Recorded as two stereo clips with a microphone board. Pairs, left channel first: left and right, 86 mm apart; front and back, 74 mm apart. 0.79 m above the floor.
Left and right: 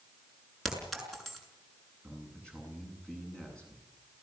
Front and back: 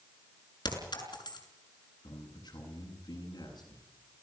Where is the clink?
Straight ahead, 6 m.